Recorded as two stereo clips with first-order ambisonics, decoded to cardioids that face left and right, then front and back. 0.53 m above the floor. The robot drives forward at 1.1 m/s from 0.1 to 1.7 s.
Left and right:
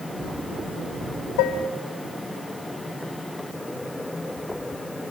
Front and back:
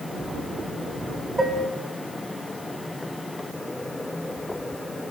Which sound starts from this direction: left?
Dishes clattering, at 1.4 s.